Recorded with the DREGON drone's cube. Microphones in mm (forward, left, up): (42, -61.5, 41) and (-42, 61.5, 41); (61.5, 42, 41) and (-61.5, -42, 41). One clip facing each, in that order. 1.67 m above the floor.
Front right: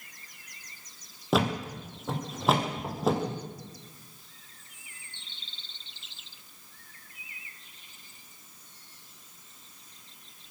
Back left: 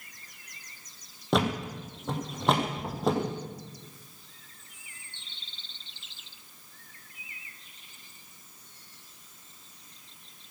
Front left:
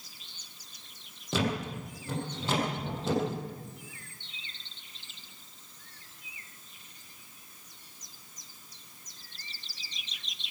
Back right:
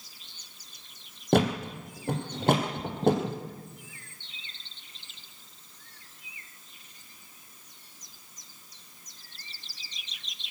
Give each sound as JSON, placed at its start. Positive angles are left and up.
{"t": 1.3, "sound": "a thud", "azimuth_deg": -145, "distance_m": 3.0}